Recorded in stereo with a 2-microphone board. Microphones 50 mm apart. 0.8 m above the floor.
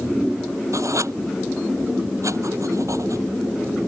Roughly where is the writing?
Right.